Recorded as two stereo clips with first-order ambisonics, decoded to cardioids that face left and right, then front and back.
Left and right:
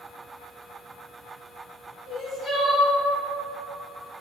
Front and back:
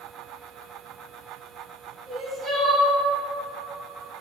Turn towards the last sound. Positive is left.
turn(degrees=100)